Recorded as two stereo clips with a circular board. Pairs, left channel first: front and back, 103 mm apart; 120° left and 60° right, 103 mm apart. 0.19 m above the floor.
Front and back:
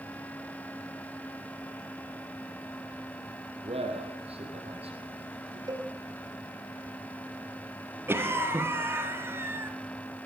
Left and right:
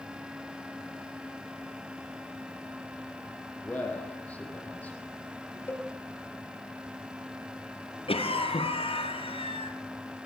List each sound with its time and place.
3.6 s a man speaking: 165° right, 6 m
5.7 s a cowbell: straight behind, 1.6 m
8.1 s a cough: 115° left, 3.5 m